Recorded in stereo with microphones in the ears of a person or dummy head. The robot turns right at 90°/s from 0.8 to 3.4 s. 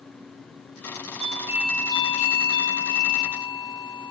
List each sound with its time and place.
1.2 s a doorbell: 40° right, 1.5 m; by 4.1 s 160° left, 1.5 m